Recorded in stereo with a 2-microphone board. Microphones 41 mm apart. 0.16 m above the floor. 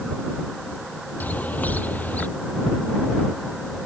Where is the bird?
45° left (ahead or behind).